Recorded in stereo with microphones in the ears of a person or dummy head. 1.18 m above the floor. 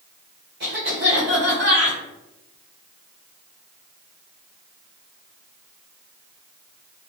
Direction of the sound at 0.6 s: 55° right (ahead or behind).